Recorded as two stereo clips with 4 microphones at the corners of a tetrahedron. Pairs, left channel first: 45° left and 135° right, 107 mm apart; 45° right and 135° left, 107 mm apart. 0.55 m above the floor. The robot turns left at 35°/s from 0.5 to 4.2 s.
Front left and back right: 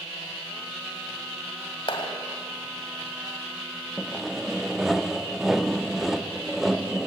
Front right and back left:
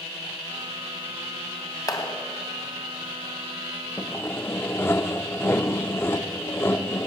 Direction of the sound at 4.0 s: 45° right.